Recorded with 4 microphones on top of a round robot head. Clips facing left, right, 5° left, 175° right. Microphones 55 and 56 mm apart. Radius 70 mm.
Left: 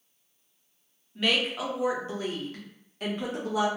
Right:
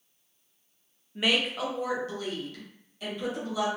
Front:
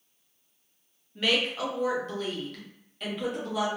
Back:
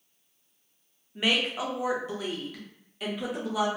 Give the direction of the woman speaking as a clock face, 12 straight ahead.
4 o'clock.